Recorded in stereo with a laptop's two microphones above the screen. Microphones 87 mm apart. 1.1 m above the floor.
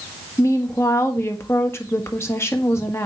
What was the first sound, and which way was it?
A woman speaking, 30° left (ahead or behind).